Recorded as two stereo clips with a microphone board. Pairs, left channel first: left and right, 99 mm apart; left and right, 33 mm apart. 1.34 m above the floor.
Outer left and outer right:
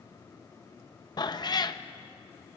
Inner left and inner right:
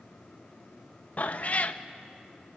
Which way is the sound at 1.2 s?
45° left (ahead or behind).